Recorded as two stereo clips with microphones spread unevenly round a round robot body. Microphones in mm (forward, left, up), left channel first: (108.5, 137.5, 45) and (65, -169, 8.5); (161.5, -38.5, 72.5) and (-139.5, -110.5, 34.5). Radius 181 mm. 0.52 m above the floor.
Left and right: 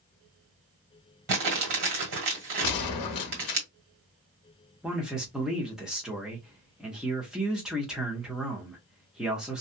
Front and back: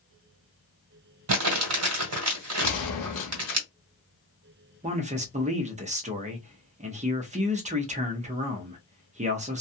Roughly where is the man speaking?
Behind.